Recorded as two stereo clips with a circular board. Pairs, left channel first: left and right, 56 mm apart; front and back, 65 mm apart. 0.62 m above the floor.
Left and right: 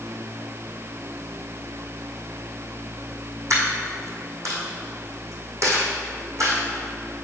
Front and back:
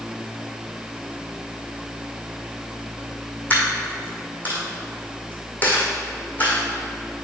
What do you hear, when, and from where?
3.5 s a dropped coin: 65° right, 2 m